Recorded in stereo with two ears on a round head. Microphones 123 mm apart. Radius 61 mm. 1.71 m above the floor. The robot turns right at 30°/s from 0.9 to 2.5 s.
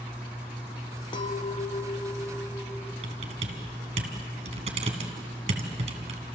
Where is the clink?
130° left, 0.8 m; by 2.9 s 170° left, 0.8 m.